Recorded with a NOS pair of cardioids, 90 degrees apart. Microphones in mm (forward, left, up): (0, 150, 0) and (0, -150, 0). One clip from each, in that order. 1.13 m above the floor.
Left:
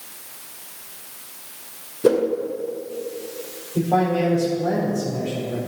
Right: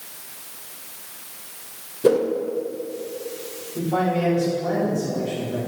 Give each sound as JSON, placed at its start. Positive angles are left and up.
{"t": 2.0, "sound": "a whoosh", "azimuth_deg": 5, "distance_m": 2.0}
{"t": 3.8, "sound": "a man speaking", "azimuth_deg": 55, "distance_m": 3.5}